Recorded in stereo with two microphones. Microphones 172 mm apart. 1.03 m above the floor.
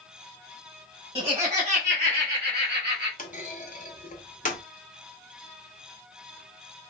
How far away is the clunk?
About 0.8 m.